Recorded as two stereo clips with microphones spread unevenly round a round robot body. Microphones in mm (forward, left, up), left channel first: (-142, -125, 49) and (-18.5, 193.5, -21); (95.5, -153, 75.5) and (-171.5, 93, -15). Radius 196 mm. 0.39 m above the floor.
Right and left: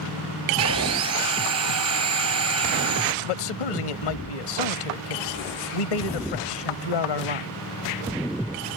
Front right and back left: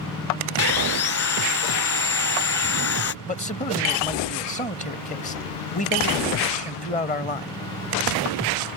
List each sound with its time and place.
0.6 s sawing: 15° left
3.2 s a man speaking: 120° right